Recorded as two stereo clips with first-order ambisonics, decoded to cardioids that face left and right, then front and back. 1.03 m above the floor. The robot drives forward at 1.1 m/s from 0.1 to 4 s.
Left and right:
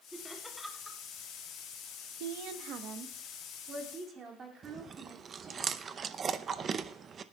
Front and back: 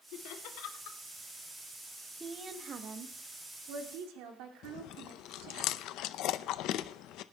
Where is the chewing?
30° right, 0.5 m.